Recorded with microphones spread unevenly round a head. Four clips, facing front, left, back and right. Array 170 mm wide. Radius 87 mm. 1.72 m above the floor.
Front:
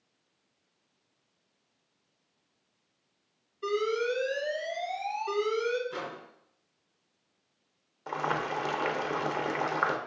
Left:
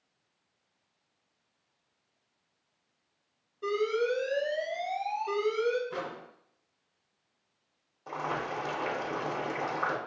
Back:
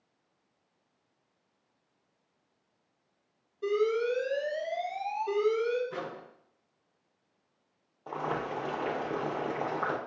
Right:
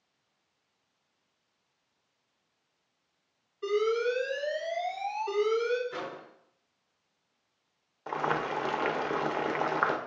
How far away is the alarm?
About 1.8 m.